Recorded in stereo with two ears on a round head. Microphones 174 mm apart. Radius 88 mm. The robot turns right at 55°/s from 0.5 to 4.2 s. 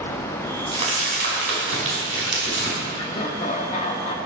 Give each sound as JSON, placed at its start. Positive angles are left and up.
{"t": 0.7, "sound": "crumpling", "side_deg": -25, "distance_m": 5.0}
{"t": 2.9, "sound": "laughter", "azimuth_deg": 40, "distance_m": 0.9}